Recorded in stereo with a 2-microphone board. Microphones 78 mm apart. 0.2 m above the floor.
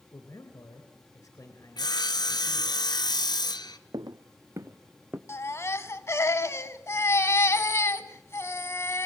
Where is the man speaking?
45° left (ahead or behind), 2.5 m.